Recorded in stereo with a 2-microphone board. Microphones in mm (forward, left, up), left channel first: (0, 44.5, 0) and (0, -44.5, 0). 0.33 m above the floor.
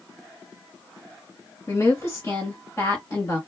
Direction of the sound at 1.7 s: 25° left (ahead or behind).